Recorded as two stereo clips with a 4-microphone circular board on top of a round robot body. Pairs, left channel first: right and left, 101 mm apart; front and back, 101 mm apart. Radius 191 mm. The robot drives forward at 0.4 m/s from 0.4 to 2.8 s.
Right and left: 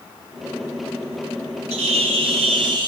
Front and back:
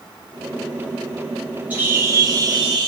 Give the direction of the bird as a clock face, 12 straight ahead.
9 o'clock.